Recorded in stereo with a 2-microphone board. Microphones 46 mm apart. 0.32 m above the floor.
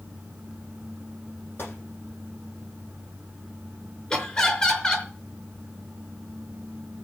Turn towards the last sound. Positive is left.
turn(degrees=20)  # may be behind; listen again after turning